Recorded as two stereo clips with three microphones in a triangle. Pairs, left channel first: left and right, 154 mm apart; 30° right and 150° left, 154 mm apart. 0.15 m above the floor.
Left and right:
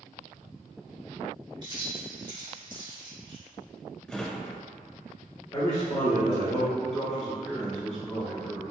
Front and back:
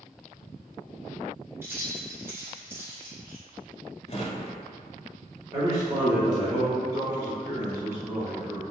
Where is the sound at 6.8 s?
165° left, 1.1 m.